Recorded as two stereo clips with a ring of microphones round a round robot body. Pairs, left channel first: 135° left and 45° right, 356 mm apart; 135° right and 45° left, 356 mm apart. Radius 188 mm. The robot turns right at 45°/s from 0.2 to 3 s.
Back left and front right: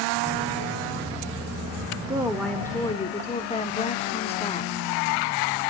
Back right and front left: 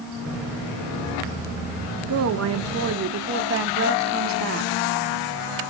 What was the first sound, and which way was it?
A woman speaking, 30° left.